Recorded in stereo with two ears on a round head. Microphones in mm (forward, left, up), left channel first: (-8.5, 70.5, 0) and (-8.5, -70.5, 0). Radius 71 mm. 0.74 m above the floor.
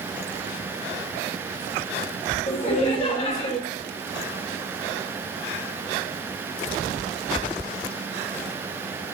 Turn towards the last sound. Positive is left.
turn(degrees=35)  # may be behind; listen again after turning